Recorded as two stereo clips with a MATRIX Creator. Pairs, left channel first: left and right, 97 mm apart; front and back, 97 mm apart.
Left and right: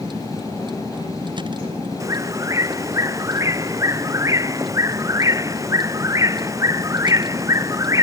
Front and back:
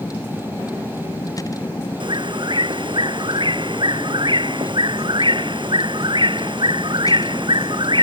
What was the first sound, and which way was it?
A vehicle, 55° right.